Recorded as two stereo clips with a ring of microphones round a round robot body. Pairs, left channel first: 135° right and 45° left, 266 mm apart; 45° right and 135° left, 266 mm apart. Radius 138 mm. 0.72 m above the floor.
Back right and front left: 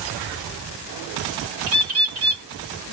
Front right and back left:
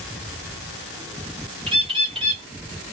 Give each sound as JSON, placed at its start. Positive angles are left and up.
{"t": 1.7, "sound": "a bird", "azimuth_deg": 65, "distance_m": 1.8}